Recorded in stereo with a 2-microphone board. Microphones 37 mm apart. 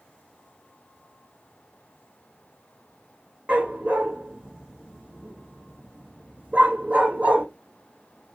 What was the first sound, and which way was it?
A dog barking, 45° right (ahead or behind).